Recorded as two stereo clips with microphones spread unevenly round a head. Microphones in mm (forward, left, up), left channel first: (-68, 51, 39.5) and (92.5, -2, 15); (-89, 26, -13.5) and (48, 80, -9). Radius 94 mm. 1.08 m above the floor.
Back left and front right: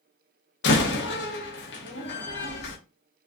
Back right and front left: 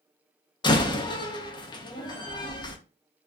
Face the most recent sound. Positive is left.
turn(degrees=140)